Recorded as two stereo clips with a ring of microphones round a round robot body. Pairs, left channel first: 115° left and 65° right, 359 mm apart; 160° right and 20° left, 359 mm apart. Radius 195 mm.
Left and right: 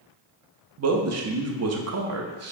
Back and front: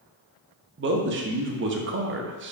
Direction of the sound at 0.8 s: 30° right.